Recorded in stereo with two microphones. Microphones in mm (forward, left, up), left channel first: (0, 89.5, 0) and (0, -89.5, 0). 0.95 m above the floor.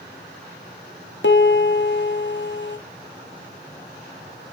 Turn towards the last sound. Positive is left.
turn(degrees=75)  # may be behind; listen again after turning